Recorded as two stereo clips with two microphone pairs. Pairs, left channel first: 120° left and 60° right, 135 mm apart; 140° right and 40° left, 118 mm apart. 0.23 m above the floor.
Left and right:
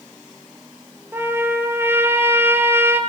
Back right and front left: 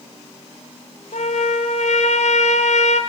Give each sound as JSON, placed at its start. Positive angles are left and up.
{"t": 1.1, "sound": "a trumpet", "azimuth_deg": -135, "distance_m": 3.5}